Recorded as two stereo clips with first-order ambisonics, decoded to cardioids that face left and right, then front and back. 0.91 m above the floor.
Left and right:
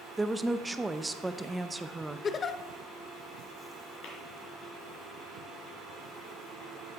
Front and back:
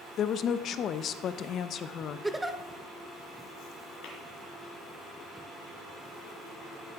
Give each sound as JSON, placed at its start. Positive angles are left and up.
{"t": 0.2, "sound": "a woman speaking", "azimuth_deg": -15, "distance_m": 0.6}
{"t": 2.2, "sound": "a giggle", "azimuth_deg": 100, "distance_m": 0.6}
{"t": 4.0, "sound": "tapping", "azimuth_deg": 45, "distance_m": 3.5}